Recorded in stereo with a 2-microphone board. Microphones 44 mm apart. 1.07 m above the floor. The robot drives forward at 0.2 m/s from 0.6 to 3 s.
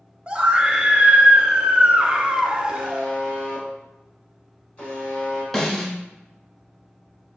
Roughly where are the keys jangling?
No keys jangling in this recording.